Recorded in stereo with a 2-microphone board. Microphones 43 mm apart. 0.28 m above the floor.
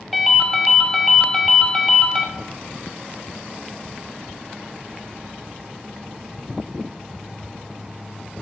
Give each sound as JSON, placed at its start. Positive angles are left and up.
{"t": 0.1, "sound": "a ringtone", "side_deg": 0, "distance_m": 0.6}